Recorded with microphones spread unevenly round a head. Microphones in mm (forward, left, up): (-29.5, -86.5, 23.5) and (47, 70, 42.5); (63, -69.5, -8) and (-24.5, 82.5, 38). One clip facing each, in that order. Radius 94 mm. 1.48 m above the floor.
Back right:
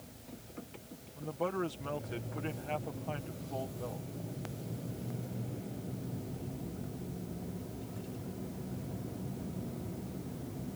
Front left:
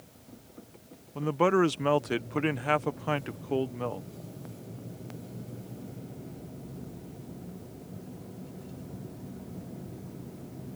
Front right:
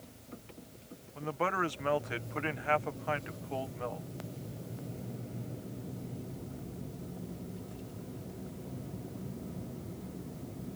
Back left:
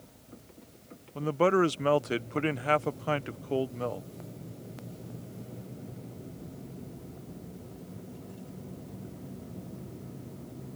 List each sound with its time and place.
1.1 s a man speaking: 75° left